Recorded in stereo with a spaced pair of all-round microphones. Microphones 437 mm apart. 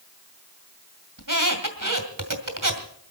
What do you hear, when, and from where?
1.2 s a squeak: 45° right (ahead or behind), 2 m